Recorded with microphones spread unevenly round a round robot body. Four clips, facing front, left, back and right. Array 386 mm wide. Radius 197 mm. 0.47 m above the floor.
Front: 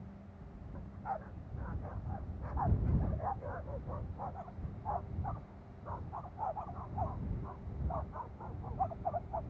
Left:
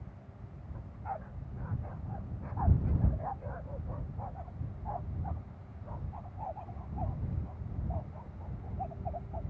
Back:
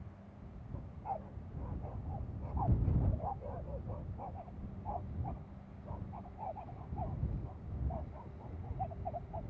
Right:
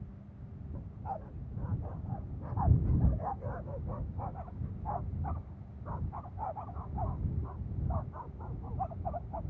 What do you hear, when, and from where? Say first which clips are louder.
0.7 s a dog barking: even, front 1 dB; 110° right; by 9.4 s 80° right